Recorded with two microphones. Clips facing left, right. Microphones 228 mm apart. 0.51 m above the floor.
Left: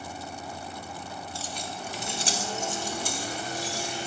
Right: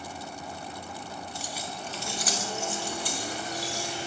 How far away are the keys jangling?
About 0.6 m.